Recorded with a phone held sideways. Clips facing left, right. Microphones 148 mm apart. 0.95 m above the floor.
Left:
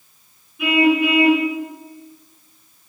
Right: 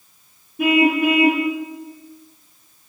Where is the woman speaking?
I don't hear a woman speaking.